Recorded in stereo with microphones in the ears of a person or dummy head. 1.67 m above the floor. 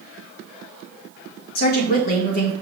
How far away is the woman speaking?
About 1.8 m.